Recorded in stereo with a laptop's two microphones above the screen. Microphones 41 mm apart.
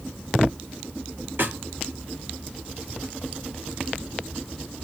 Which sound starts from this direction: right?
A snare drum, at 1.4 s.